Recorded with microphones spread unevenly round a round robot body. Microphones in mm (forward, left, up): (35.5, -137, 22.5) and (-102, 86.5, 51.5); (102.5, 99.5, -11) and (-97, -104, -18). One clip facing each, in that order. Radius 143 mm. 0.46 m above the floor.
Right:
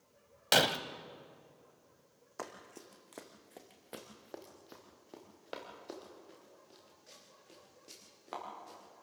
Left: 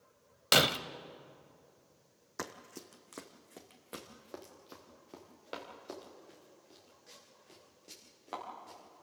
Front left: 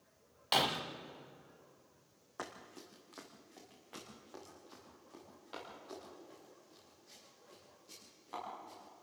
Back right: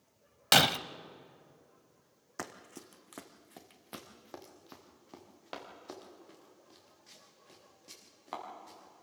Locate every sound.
0.5 s breaking glass: 160° right, 0.7 m
2.4 s running footsteps: straight behind, 1.7 m; by 9.0 s 145° right, 8.5 m